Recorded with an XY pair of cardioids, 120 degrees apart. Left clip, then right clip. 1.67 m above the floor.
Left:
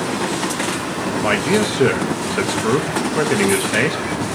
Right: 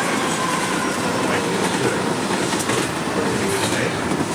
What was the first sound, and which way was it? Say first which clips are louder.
A man speaking: left 7 dB; 60° left.